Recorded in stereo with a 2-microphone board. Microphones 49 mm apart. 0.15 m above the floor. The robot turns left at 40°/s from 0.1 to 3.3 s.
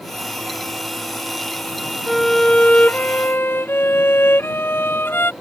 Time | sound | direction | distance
2.1 | a violin | straight behind | ?